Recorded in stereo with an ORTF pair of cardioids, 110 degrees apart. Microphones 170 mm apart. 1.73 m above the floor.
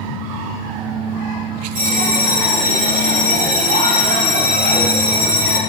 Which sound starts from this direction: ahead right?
A bell, at 1.8 s.